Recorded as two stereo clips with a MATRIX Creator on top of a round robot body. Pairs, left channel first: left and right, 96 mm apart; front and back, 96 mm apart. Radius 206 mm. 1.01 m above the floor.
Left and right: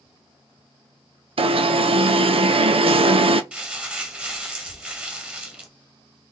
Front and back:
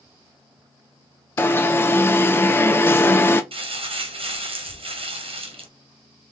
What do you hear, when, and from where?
1.4 s an alarm: 65° right, 0.7 m
3.5 s crumpling: 165° right, 1.4 m